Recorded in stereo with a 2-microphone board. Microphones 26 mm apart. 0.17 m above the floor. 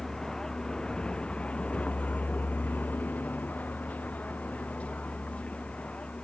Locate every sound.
0.0 s a vehicle: 15° left (ahead or behind); by 6.2 s 50° left (ahead or behind)